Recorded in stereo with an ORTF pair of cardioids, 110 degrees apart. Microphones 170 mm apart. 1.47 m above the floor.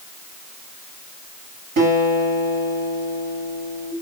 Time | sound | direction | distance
1.8 | a guitar | 65° right | 3.5 m